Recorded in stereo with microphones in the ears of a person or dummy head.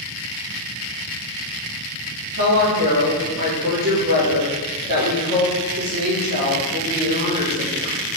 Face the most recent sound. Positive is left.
turn(degrees=-55)  # may be behind; listen again after turning